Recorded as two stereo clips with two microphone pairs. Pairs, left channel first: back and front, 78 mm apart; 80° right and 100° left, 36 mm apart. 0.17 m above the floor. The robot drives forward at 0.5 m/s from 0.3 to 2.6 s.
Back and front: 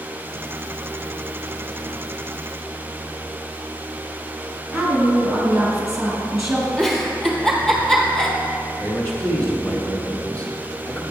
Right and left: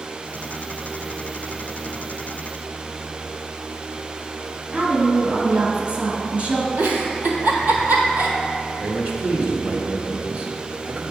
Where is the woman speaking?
80° left, 1.6 m.